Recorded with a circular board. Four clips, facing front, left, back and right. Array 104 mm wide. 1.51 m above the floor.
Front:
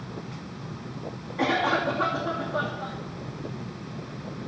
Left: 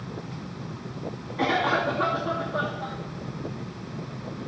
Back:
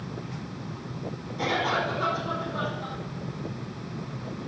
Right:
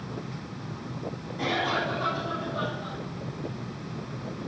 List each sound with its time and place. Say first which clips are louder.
1.4 s a cough: left 4 dB, front 3 dB; 35° left, 3 m